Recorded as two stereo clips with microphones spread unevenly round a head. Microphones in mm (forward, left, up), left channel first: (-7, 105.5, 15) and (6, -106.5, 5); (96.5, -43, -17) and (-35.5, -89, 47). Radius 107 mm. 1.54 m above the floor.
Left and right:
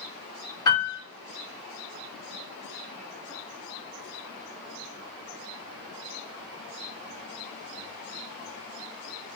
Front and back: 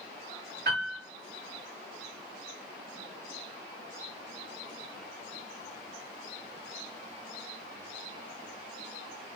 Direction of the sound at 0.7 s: 165° left.